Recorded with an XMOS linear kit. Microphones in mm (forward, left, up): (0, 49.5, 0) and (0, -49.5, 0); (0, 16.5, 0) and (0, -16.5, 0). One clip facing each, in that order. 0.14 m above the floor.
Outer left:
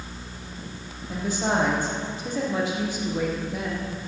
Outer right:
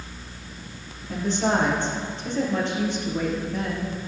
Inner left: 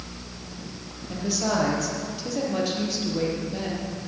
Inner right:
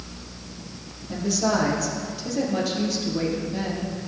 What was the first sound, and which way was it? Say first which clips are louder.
A woman speaking: outer right 2 dB, inner right 3 dB; 10° left (ahead or behind).